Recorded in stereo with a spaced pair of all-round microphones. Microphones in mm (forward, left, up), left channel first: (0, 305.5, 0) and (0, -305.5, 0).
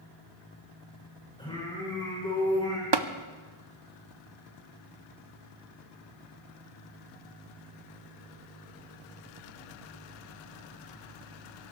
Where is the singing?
10° left (ahead or behind), 7.5 m.